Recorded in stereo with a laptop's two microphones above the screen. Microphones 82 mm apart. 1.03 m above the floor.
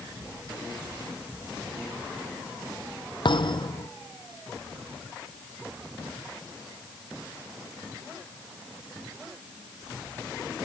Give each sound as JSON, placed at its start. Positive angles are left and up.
{"t": 3.2, "sound": "a thud", "side_deg": 65}